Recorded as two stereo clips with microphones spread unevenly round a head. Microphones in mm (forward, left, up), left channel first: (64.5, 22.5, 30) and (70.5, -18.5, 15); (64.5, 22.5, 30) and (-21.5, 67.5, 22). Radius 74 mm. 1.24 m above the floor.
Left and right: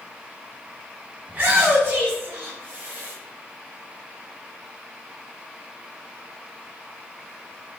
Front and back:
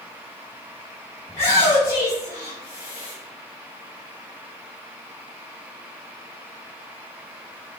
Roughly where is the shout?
Ahead right.